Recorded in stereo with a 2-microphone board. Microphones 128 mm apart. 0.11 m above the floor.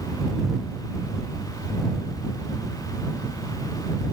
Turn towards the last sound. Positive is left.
No sound to turn to.